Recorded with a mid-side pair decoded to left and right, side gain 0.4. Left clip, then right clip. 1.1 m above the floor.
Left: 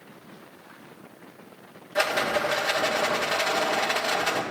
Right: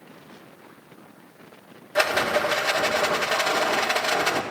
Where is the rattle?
40° right, 1.3 m.